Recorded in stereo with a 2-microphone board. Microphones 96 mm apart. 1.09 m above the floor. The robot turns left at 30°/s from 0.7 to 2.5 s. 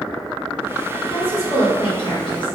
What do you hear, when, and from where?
1.0 s a woman speaking: 100° left, 1.5 m; by 2.6 s 55° left, 1.5 m